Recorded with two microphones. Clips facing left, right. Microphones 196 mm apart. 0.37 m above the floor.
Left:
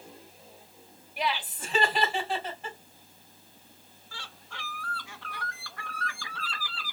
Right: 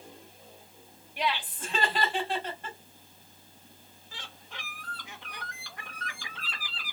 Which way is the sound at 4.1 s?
20° right (ahead or behind).